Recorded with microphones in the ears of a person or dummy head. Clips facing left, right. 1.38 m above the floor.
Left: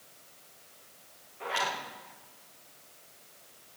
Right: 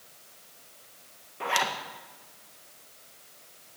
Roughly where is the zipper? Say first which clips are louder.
Right 4 dB; right.